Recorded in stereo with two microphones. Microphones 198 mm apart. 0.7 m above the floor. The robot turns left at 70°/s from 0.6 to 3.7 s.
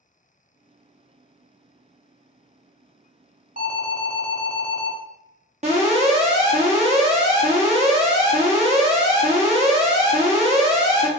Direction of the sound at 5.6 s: 35° right (ahead or behind).